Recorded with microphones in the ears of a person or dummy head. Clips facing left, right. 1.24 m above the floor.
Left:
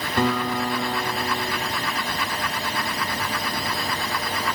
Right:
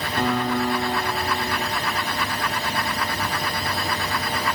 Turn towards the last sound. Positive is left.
turn(degrees=70)  # may be behind; listen again after turning